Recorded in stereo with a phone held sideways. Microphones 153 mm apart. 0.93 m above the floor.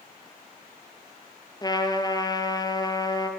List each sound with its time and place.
1.6 s a trumpet: 25° left (ahead or behind), 4 m